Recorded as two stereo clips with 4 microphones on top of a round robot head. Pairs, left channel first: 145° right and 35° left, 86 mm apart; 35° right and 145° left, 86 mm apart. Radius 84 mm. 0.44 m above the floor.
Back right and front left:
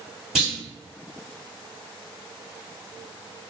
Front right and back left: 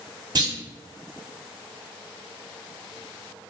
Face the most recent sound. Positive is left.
turn(degrees=115)